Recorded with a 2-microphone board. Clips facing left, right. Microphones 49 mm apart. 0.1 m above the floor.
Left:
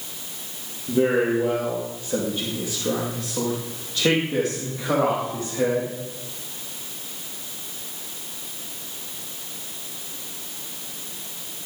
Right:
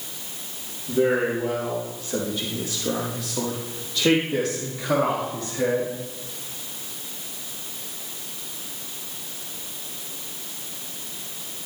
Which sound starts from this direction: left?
A man speaking, at 0.9 s.